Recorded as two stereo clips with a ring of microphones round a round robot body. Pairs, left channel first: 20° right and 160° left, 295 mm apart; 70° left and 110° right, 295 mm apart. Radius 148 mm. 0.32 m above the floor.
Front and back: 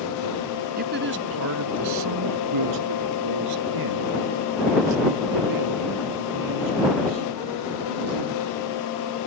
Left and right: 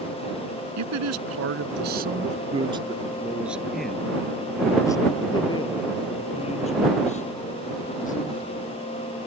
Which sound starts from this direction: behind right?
A man speaking, at 0.8 s.